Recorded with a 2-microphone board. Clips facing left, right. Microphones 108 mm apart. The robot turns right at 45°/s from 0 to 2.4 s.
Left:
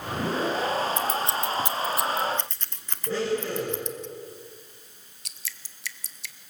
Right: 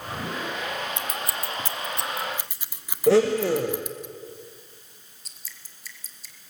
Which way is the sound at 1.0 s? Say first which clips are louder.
Left 5 dB; 35° left (ahead or behind).